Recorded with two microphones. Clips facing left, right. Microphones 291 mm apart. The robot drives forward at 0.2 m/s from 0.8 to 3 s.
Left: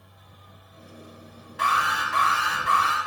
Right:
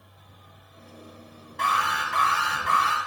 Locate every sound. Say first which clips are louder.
1.6 s an alarm: left 1 dB; 5° left (ahead or behind), 0.7 m